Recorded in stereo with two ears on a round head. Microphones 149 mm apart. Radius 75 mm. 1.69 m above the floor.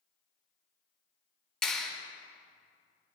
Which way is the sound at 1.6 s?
5° left (ahead or behind).